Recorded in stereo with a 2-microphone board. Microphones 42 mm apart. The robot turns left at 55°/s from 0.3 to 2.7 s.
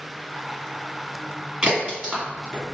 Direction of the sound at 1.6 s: 30° right (ahead or behind).